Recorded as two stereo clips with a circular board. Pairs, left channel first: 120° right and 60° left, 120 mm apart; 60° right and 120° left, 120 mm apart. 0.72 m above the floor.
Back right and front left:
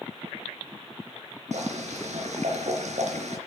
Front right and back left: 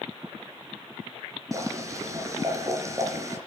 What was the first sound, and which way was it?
Boiling, 60° left.